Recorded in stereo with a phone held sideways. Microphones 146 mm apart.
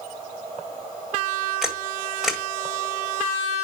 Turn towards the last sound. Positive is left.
turn(degrees=0)  # may be behind; listen again after turning